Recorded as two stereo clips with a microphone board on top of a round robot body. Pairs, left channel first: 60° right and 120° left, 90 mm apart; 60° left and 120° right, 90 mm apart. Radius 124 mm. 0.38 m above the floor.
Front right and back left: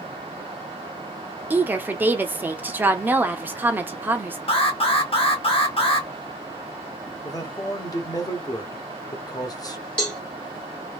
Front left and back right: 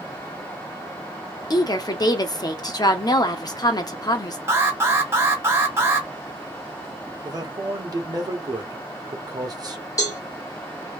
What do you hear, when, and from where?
1.5 s a woman speaking: 60° left, 1.1 m
4.5 s an alarm: 60° right, 1.7 m
7.2 s a man speaking: 95° right, 1.4 m
10.0 s a cowbell: 15° left, 1.8 m